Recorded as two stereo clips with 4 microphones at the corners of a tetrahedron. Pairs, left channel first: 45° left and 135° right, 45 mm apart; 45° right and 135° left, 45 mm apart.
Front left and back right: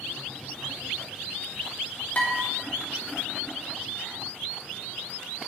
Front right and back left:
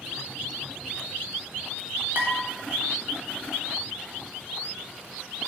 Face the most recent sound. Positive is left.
turn(degrees=95)